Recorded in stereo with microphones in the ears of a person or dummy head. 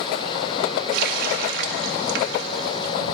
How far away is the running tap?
About 1.2 m.